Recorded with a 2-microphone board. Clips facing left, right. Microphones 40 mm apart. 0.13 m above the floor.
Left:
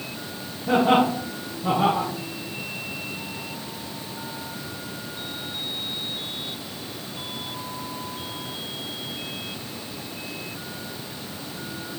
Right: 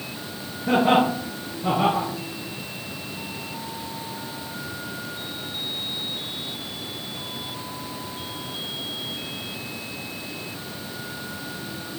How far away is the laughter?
About 2 m.